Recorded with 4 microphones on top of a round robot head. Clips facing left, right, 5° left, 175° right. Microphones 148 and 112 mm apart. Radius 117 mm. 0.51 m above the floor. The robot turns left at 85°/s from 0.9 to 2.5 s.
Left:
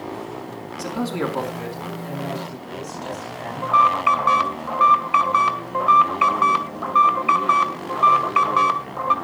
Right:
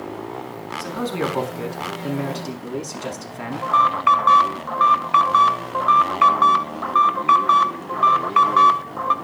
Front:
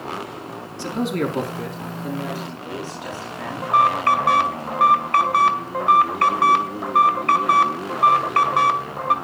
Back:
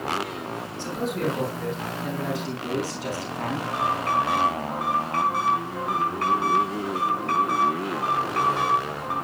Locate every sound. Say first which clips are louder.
0.8 s a man speaking: even, front 5 dB; 20° left, 5.5 m; by 3.7 s 115° right, 5.5 m
3.6 s an alarm: even, front 11 dB; 10° left, 2.5 m